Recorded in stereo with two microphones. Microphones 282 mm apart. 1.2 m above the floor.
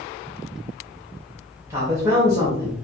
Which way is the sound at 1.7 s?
10° right (ahead or behind).